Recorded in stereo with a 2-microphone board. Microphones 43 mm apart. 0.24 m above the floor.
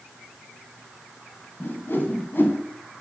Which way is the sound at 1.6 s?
55° left (ahead or behind).